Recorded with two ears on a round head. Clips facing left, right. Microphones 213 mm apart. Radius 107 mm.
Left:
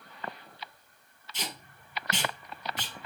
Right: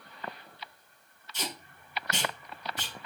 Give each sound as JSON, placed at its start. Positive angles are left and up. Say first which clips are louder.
{"t": 1.3, "sound": "tape being pulled", "louder": "right 2 dB", "side_deg": 20, "distance_m": 3.5}